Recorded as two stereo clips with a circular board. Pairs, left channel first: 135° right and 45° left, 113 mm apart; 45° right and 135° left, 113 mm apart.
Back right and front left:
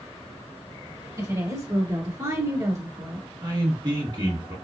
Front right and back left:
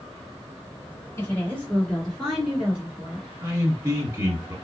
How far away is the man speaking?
About 1.8 m.